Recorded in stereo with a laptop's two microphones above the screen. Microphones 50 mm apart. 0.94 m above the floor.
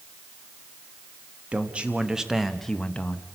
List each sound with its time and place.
1.5 s a man speaking: 25° right (ahead or behind), 1.1 m; by 3.2 s 35° left (ahead or behind), 0.7 m